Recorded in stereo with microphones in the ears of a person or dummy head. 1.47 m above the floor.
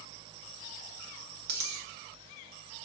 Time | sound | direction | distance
1.5 | a dropped coin | 55° right (ahead or behind) | 1.6 m